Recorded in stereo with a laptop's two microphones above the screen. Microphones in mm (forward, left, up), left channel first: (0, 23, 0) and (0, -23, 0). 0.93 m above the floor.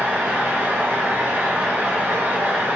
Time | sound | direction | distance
0.0 | a fan | 40° right (ahead or behind) | 0.8 m